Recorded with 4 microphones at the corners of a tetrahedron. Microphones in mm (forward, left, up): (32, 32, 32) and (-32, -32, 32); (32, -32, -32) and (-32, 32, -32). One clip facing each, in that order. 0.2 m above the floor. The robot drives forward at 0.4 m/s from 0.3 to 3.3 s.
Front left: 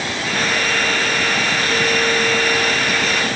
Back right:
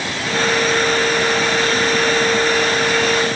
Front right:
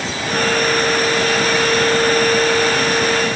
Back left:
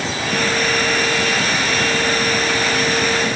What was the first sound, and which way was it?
Only background noise.